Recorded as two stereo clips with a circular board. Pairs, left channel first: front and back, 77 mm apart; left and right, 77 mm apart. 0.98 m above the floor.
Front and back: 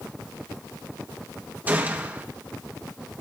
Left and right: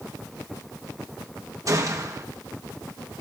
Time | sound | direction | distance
1.7 | a gunshot | 120° right | 1.1 m